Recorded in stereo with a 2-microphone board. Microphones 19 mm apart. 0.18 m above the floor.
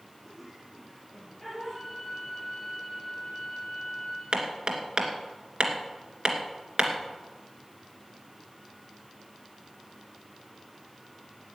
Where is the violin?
20° right (ahead or behind), 7 m.